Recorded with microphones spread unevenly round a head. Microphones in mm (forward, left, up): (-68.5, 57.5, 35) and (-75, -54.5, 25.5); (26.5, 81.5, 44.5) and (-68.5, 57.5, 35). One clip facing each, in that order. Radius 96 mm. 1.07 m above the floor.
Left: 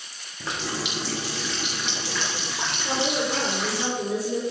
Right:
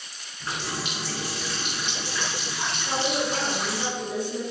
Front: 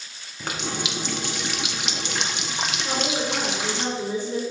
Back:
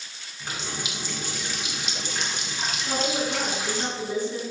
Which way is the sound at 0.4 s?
30° left.